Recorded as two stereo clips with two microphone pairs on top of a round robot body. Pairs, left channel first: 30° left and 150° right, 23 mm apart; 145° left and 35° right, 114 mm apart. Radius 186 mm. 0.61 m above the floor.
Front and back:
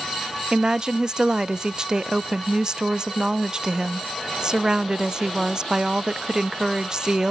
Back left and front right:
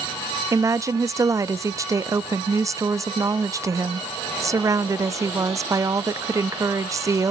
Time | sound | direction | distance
0.5 | a woman speaking | 90° right | 0.9 m